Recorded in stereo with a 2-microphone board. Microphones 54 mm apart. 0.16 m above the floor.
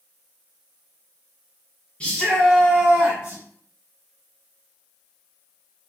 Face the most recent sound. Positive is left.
turn(degrees=-20)  # may be behind; listen again after turning